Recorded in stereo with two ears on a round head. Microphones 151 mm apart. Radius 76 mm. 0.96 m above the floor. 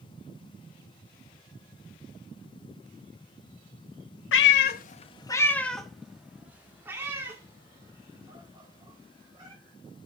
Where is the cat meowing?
85° left, 0.5 m; by 9.6 s 25° right (ahead or behind), 3 m.